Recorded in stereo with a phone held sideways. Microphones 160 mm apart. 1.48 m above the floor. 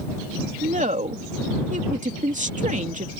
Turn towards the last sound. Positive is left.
turn(degrees=-50)  # may be behind; listen again after turning